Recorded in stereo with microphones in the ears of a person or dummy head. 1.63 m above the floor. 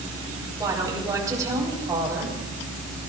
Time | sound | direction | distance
0.6 | a woman speaking | 20° right (ahead or behind) | 4 m